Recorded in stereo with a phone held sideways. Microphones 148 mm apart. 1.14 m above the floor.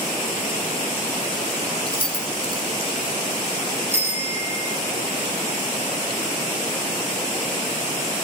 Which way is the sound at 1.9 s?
40° left (ahead or behind).